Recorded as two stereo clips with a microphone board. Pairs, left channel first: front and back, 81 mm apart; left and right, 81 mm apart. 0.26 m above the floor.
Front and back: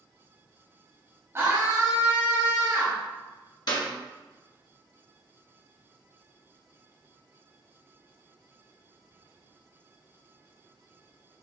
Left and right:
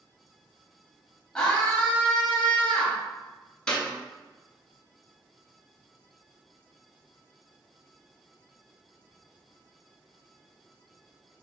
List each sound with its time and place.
1.4 s a scream: 165° left, 1.2 m
3.7 s a clap: 10° left, 1.8 m